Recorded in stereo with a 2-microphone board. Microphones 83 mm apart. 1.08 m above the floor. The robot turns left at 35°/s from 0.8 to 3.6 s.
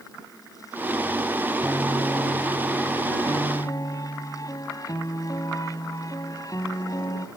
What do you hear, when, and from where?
1.6 s a piano: 155° right; by 7.3 s 135° left